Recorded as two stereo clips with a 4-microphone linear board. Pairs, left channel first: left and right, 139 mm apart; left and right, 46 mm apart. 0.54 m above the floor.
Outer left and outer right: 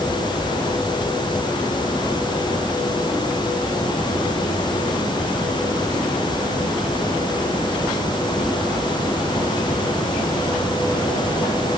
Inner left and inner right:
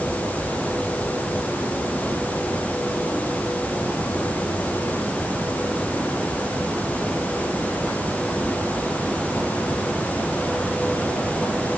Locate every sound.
Only background noise.